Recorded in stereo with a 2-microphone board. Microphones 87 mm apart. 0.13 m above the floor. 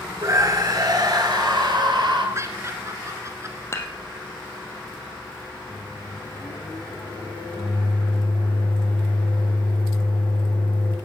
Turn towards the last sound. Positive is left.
turn(degrees=80)